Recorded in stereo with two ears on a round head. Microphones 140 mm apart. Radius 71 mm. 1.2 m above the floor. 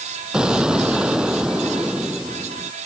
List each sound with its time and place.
0.3 s an explosion: 5° right (ahead or behind)